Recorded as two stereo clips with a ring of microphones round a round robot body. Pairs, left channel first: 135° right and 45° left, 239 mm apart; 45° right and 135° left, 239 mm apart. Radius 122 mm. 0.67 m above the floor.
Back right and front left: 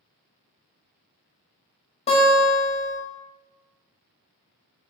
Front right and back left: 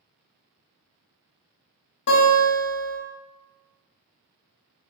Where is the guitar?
70° right, 1.3 m.